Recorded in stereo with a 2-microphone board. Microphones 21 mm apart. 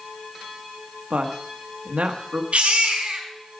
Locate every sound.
1.1 s a woman speaking: 80° right, 1.4 m
2.5 s a baby crying: 70° right (ahead or behind), 3.5 m